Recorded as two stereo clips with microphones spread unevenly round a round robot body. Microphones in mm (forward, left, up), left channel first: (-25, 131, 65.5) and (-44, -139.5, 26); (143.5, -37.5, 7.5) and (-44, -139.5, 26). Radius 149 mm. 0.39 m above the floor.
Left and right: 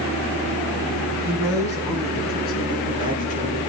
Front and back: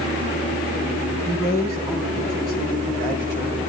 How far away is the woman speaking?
About 5.5 m.